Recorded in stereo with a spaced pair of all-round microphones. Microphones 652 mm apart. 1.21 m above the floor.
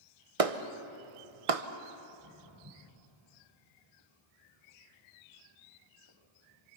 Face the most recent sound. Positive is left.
turn(degrees=-40)  # may be behind; listen again after turning